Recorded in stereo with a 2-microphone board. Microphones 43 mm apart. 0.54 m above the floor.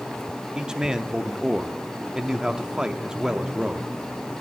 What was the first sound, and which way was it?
A man speaking, 15° right (ahead or behind).